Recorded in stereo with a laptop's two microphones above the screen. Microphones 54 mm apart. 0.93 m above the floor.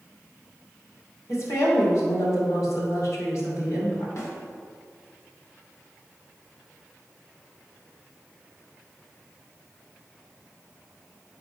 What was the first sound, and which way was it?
A woman speaking, 60° left (ahead or behind).